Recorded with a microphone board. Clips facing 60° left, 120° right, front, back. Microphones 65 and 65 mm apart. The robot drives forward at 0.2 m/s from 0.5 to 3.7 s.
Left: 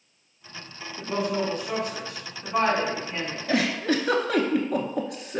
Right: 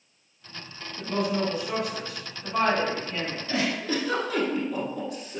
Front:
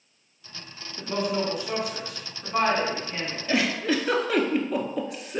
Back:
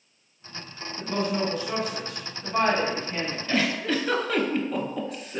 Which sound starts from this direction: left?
A giggle, at 3.5 s.